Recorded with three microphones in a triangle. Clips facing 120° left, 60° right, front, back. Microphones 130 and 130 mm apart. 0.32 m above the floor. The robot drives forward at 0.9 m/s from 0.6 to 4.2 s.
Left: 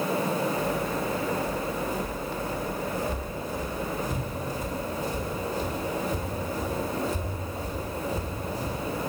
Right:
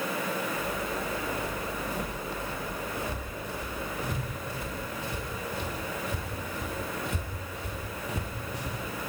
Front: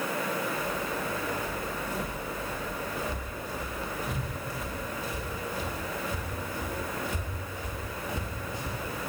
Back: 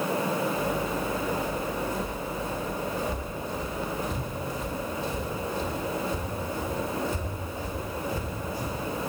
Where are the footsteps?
75° right, 8 m; by 8.8 s 70° right, 5 m.